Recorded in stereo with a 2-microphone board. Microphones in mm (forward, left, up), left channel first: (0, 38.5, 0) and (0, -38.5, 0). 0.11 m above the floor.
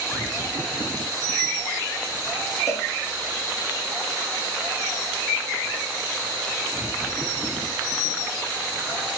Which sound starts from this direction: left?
A cowbell, at 2.7 s.